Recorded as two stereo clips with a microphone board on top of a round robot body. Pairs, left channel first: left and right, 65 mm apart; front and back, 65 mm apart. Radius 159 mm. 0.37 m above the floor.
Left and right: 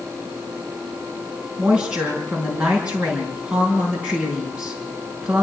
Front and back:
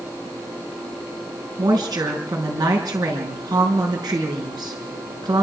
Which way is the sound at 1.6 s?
160° right.